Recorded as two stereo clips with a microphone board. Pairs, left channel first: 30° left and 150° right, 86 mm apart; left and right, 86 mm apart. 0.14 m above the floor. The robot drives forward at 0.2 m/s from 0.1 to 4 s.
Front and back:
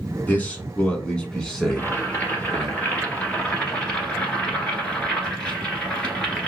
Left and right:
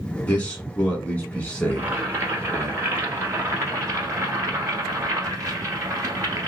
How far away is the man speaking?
About 1.1 m.